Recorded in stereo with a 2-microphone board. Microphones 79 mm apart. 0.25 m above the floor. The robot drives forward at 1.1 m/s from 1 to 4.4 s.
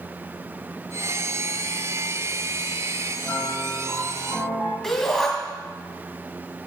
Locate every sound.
3.2 s a piano: 15° left (ahead or behind), 2.5 m; by 4.7 s 10° left (ahead or behind), 4 m
4.8 s a shout: 5° left (ahead or behind), 2 m